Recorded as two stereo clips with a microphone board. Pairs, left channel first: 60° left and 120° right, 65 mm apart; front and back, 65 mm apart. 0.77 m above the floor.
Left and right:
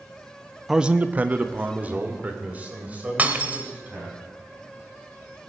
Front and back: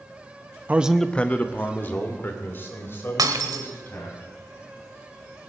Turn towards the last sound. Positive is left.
turn(degrees=175)